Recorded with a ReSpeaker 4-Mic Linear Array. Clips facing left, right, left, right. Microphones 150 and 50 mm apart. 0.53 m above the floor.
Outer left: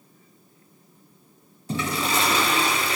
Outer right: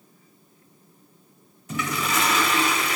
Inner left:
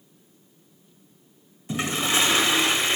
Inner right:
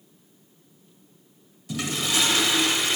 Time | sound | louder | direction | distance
1.7 | a toilet flushing | outer left 1 dB, inner left 3 dB | 30° left (ahead or behind) | 1.6 m